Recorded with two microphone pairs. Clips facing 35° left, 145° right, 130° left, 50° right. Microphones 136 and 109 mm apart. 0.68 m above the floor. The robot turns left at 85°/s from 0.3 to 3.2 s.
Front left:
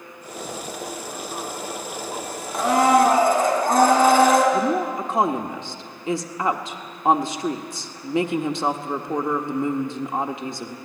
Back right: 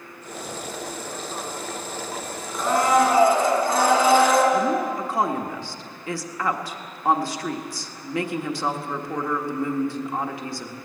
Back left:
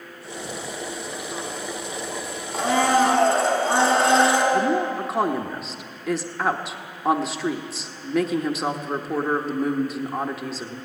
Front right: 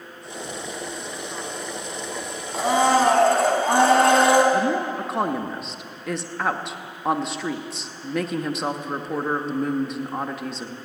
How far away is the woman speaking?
About 1.1 m.